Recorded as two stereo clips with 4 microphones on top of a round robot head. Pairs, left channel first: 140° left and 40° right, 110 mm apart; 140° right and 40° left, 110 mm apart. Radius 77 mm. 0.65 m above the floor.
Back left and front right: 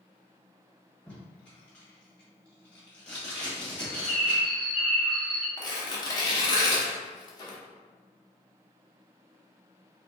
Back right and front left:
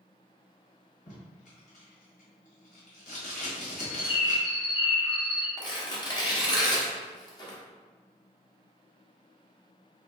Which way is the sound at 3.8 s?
125° right.